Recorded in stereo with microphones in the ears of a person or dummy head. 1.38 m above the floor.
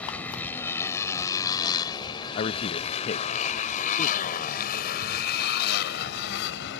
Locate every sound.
0.0 s a motorcycle: 5° left (ahead or behind); by 6.8 s 70° left (ahead or behind)
2.4 s a man speaking: 35° left (ahead or behind)